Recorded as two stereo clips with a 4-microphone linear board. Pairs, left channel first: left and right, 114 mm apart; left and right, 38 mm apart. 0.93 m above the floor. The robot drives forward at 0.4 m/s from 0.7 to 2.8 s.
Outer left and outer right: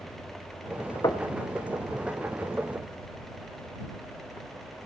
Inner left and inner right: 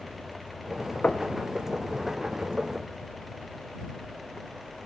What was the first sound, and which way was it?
Knocking, 40° left (ahead or behind).